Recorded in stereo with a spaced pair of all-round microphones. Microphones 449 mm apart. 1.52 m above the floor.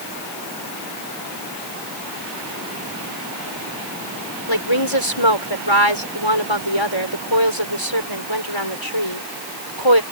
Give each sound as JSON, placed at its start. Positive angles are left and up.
{"t": 4.5, "sound": "a woman speaking", "side_deg": 90}